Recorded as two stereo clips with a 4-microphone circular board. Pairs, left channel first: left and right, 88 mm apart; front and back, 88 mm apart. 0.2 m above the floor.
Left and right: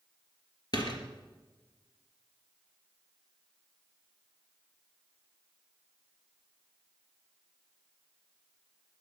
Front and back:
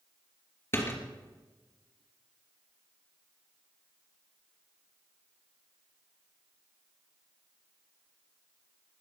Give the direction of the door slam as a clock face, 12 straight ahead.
10 o'clock.